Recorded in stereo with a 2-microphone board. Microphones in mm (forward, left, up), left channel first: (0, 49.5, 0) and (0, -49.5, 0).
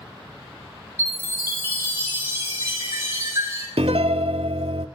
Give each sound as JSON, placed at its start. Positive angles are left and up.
{"t": 1.0, "sound": "a chime", "side_deg": -30, "distance_m": 3.0}
{"t": 3.8, "sound": "a piano", "side_deg": -75, "distance_m": 0.5}